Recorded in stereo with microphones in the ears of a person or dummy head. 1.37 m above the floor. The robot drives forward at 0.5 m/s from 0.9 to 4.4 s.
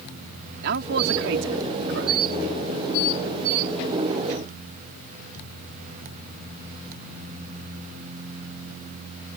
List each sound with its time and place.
0.6 s a man speaking: 55° right (ahead or behind); by 2.2 s 70° right (ahead or behind)